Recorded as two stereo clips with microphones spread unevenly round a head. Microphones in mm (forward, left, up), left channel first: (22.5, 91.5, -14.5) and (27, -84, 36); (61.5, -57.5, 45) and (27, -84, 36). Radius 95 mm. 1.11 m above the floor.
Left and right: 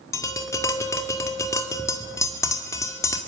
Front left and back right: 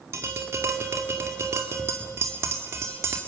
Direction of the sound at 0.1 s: 170° left.